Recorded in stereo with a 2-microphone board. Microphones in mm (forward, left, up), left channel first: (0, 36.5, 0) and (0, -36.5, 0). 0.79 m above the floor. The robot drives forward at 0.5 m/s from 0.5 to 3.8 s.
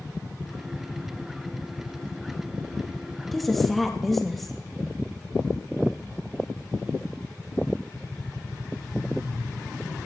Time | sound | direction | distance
3.3 | a woman speaking | centre (ahead or behind) | 1.2 m